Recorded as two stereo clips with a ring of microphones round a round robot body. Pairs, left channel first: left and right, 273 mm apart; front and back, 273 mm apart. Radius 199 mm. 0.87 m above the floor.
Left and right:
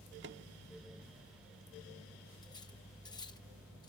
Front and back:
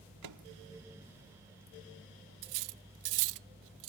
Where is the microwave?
150° right.